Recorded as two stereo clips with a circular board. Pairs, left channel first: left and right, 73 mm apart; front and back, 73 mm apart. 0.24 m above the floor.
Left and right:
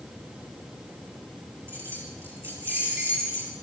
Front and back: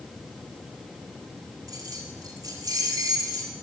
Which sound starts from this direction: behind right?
Keys jangling, at 1.7 s.